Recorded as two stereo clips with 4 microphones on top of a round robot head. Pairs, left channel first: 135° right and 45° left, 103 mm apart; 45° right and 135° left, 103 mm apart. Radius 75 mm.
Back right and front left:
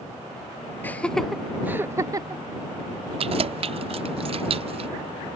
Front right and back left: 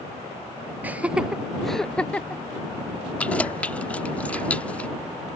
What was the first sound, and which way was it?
Laughter, straight behind.